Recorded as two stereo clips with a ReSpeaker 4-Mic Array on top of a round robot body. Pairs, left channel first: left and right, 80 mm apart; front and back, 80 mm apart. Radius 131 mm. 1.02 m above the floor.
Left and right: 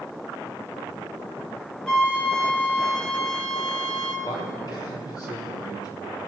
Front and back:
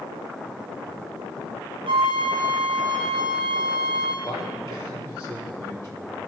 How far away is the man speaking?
About 4 m.